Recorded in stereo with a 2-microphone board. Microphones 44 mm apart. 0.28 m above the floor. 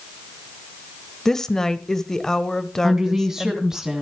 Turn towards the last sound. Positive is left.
turn(degrees=-15)  # may be behind; listen again after turning